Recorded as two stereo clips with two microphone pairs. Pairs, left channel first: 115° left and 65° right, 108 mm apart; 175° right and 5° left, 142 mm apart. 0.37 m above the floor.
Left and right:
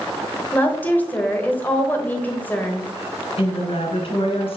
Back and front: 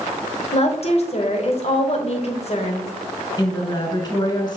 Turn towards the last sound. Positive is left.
turn(degrees=130)